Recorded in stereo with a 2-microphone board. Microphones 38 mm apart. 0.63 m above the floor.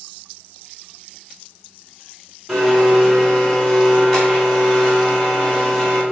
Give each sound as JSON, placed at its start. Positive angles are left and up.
{"t": 2.5, "sound": "a blender", "side_deg": 10, "distance_m": 3.0}